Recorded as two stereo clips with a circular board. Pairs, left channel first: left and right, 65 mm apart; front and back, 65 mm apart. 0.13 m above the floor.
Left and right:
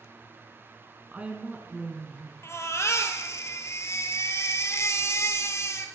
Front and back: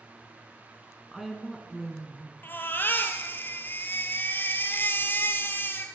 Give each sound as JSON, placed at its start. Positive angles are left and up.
{"t": 1.1, "sound": "a woman speaking", "azimuth_deg": -95, "distance_m": 1.2}
{"t": 2.4, "sound": "a baby crying", "azimuth_deg": 55, "distance_m": 1.1}